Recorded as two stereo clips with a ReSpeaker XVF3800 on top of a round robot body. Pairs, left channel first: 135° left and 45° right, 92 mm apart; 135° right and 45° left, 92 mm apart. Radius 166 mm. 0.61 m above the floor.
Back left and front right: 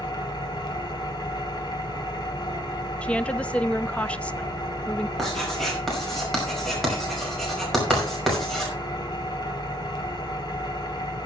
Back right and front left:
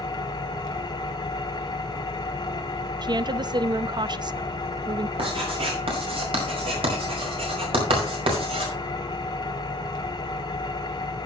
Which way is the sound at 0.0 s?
Straight behind.